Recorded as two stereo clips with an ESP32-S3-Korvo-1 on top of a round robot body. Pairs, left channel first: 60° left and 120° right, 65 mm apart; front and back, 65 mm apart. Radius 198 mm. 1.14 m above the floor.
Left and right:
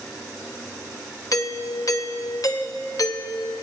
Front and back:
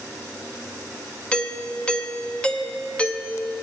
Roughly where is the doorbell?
Left.